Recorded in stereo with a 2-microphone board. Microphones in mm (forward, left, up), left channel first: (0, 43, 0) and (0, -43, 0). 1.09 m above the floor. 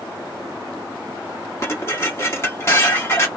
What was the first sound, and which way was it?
Dishes clattering, 30° left (ahead or behind).